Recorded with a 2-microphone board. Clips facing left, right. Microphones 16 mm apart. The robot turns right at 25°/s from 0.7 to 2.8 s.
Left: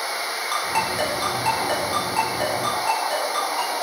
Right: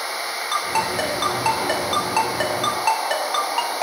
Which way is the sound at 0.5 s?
10° right (ahead or behind).